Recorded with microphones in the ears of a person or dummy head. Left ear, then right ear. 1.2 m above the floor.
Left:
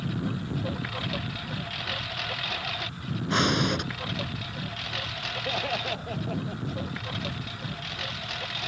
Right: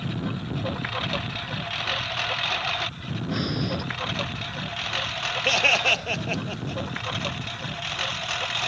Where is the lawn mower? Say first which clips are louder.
Right 2 dB; 30° right (ahead or behind); by 8.7 s 35° right (ahead or behind).